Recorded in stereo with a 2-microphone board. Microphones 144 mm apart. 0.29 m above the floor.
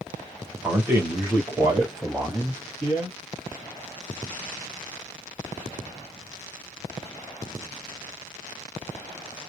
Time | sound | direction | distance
0.6 | a man speaking | 10° right (ahead or behind) | 0.9 m